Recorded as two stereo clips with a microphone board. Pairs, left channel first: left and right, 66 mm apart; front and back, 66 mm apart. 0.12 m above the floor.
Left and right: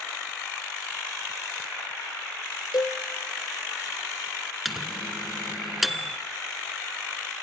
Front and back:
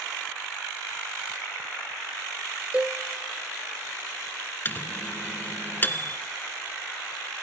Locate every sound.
2.7 s a cowbell: 110° left, 1.4 m
4.7 s a microwave: 5° right, 1.1 m